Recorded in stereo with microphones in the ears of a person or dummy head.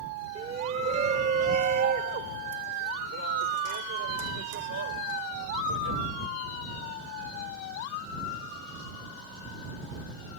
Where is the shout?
30° right (ahead or behind); by 6.0 s 70° right (ahead or behind).